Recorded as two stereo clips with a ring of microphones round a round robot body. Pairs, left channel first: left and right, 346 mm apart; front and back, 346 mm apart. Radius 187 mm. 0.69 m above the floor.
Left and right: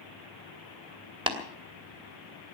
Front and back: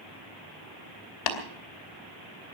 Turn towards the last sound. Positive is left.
turn(degrees=-15)